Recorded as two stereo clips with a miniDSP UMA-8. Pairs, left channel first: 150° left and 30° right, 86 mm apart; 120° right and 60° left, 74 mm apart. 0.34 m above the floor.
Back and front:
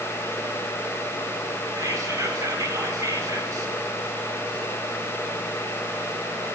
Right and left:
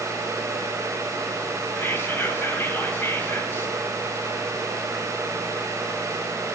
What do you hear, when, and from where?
1.8 s whispering: 70° right, 1.4 m